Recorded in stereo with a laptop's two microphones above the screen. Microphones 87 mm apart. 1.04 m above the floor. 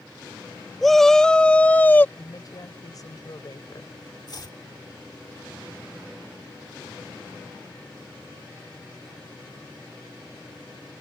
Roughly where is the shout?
Centre.